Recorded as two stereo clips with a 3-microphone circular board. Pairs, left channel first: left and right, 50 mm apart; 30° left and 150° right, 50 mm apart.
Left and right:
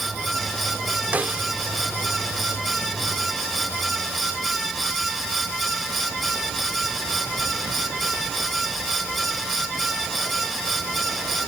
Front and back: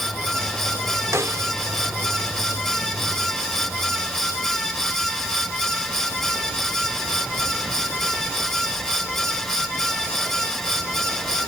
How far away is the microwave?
I don't hear a microwave.